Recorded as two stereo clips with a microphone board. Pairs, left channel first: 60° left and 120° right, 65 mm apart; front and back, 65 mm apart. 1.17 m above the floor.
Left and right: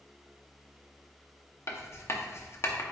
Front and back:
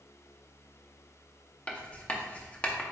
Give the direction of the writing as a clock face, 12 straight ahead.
10 o'clock.